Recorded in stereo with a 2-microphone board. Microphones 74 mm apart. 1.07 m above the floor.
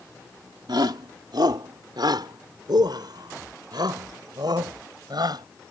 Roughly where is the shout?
Right.